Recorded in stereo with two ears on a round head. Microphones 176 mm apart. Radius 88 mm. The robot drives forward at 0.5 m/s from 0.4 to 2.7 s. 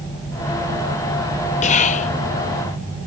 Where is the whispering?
35° left (ahead or behind), 0.6 m.